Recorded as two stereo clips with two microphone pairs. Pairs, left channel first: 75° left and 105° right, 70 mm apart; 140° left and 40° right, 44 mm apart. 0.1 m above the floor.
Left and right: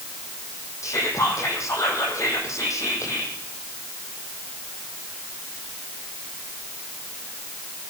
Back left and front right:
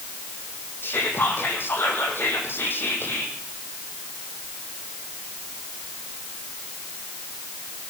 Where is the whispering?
115° left, 4.5 m.